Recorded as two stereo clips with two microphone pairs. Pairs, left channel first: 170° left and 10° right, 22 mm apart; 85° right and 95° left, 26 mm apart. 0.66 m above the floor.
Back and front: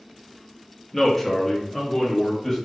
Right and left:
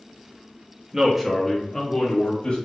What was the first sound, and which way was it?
A man speaking, 85° left.